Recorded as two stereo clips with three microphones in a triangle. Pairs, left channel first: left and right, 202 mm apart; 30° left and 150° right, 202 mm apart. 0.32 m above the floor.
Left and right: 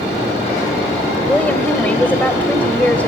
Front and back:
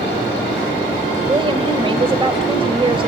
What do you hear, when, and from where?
1.3 s a woman speaking: 170° left, 1.7 m